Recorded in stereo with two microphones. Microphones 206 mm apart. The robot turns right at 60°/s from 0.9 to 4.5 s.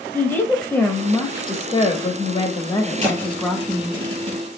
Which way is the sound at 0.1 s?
10° left (ahead or behind).